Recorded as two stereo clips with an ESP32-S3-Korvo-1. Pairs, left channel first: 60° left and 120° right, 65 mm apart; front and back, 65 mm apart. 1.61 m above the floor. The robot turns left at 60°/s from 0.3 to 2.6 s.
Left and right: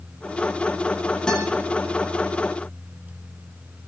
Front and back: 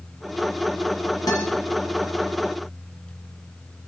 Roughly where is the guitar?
Ahead.